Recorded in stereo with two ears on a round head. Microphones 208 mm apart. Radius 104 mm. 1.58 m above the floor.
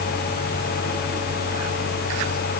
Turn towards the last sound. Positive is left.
No sound to turn to.